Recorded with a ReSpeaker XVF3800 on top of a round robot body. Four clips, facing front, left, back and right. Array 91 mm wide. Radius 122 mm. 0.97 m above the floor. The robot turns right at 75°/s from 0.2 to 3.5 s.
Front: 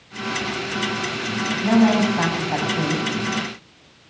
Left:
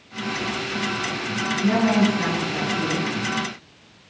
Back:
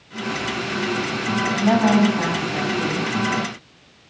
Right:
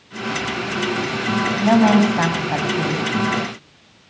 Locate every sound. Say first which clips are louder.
1.6 s a woman speaking: right 5 dB, even; 125° right, 7 m; by 3.1 s 15° right, 7 m